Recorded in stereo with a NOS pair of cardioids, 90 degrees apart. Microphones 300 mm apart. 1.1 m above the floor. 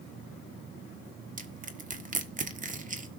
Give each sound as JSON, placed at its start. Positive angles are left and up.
{"t": 1.4, "sound": "crushing", "azimuth_deg": -30, "distance_m": 1.5}